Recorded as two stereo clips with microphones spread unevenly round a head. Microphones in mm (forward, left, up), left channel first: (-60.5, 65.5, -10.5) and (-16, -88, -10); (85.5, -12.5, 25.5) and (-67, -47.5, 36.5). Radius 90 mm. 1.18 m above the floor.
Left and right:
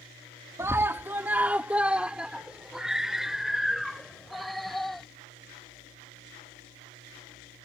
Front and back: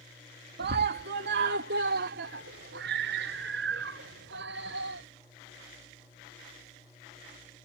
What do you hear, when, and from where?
0.6 s a scream: 145° right; by 5.0 s 165° right